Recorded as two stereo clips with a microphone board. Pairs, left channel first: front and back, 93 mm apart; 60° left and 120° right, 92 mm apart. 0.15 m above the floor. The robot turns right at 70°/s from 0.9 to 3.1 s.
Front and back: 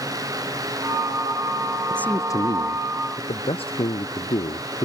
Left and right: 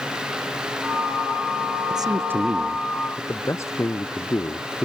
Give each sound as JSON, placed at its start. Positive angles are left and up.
{"t": 1.9, "sound": "a man speaking", "azimuth_deg": -80}